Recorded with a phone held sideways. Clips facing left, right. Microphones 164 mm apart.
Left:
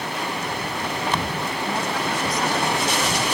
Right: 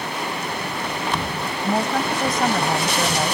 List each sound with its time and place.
1.6 s a woman speaking: 50° right (ahead or behind)